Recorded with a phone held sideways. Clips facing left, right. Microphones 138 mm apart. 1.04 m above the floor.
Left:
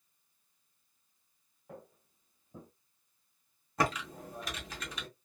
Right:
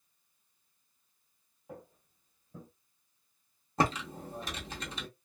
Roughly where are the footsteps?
Centre.